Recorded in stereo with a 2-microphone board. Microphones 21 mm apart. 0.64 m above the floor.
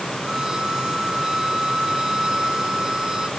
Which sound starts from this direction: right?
A violin, at 0.2 s.